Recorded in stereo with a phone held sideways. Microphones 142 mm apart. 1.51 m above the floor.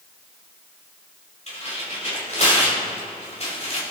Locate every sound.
1.5 s tearing paper: 50° left (ahead or behind), 5.5 m